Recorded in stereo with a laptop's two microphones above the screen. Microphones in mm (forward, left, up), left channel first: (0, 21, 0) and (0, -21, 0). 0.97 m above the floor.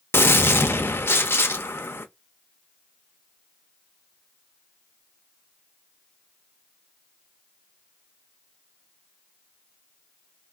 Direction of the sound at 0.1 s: 70° left (ahead or behind).